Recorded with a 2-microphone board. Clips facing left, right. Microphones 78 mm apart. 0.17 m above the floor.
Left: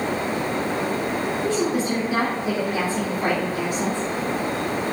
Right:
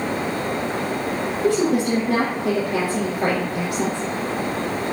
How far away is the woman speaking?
About 3 m.